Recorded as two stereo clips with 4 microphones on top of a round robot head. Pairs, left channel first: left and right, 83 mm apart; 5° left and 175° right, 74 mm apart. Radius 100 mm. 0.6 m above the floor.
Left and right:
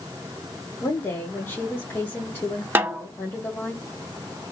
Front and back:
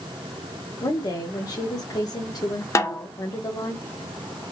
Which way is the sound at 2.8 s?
30° right.